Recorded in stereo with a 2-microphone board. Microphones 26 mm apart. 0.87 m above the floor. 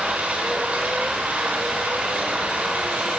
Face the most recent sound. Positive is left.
turn(degrees=-85)